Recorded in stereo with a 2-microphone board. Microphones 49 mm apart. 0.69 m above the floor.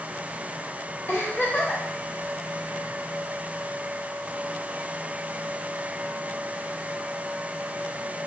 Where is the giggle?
55° left (ahead or behind), 1.8 m.